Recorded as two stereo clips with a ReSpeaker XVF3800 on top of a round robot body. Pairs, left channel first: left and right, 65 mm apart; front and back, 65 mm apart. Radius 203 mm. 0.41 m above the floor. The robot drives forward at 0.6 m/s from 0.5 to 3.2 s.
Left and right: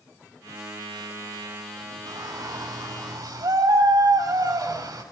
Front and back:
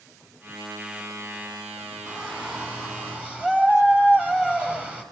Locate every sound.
2.1 s a shout: 105° right, 6.5 m; by 5.0 s 110° right, 6.5 m